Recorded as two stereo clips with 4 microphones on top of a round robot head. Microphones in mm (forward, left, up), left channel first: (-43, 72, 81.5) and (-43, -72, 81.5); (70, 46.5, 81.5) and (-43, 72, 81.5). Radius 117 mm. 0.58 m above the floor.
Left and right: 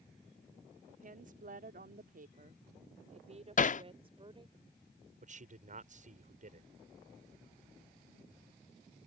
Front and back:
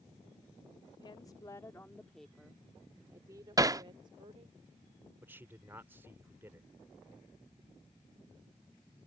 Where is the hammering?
110° left.